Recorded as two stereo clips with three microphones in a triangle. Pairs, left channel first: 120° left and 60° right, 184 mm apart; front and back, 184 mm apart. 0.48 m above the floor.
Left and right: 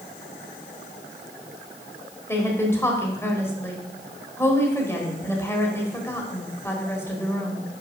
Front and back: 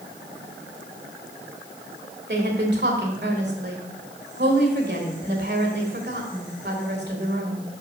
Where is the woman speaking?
165° right, 1.8 m.